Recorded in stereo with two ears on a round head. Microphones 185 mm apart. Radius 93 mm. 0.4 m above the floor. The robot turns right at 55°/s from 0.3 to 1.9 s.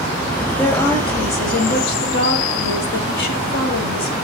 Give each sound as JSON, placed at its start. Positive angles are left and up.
{"t": 0.6, "sound": "a woman speaking", "azimuth_deg": 5, "distance_m": 2.5}